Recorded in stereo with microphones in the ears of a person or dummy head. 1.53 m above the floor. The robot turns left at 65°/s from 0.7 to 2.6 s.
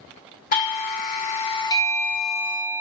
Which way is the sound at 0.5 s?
105° left.